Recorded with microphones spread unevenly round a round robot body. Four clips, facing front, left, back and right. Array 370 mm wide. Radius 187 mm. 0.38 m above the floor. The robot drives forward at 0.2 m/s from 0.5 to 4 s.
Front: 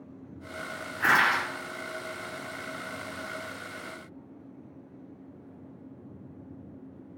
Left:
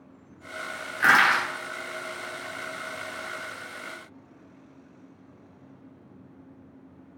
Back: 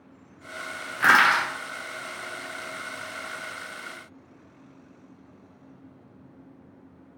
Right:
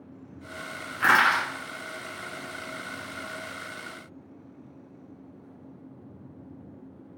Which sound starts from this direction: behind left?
Crushing, at 1.0 s.